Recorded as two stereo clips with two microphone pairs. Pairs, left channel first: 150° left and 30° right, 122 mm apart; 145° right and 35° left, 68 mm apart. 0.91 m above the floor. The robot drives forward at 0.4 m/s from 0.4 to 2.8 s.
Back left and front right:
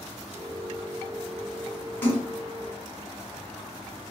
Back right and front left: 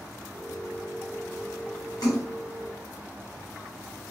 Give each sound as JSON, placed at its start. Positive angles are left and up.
{"t": 2.0, "sound": "a splash", "azimuth_deg": -135, "distance_m": 1.6}